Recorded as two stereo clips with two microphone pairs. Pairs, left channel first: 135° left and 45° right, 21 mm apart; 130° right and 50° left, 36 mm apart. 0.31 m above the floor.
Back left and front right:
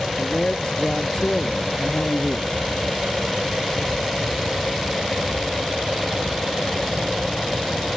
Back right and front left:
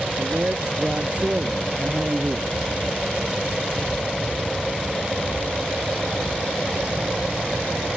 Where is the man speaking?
100° left.